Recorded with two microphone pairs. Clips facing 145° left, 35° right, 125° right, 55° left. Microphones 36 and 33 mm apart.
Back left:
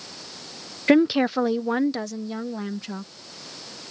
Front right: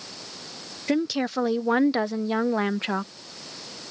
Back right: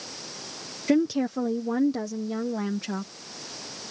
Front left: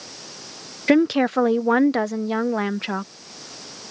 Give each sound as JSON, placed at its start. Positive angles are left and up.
{"t": 0.9, "sound": "a woman speaking", "azimuth_deg": 95}